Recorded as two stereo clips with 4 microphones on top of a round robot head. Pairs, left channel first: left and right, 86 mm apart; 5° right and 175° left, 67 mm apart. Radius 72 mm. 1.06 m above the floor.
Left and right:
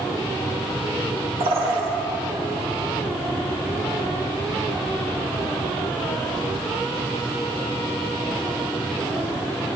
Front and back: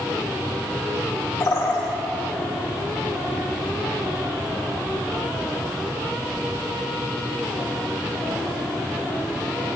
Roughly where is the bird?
Ahead right.